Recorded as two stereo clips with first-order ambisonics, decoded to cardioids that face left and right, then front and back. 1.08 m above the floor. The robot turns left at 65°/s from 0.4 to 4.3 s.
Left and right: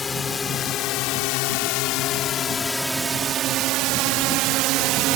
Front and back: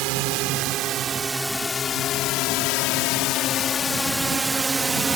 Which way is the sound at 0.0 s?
165° left.